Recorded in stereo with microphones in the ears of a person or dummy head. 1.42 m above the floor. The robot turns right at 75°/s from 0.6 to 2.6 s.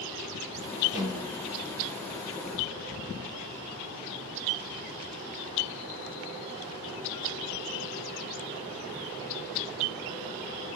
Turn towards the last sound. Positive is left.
turn(degrees=-40)